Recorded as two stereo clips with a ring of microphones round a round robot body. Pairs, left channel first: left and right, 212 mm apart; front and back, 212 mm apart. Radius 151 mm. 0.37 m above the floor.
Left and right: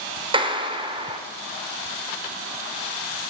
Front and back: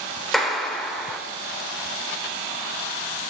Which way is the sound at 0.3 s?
90° right.